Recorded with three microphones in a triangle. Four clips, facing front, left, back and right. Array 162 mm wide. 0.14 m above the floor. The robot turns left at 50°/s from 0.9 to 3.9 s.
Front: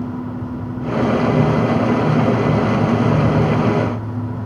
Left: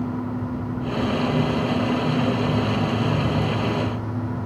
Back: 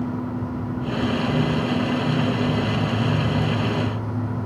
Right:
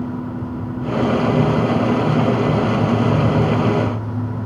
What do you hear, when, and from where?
Only background noise.